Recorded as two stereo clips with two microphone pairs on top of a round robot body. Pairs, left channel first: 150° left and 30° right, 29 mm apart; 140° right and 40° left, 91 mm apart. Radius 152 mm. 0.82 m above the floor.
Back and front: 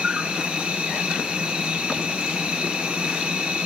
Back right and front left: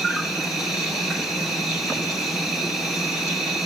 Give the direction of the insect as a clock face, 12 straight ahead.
2 o'clock.